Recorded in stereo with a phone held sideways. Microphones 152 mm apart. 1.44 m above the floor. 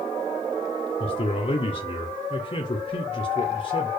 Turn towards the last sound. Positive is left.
turn(degrees=45)  # may be behind; listen again after turning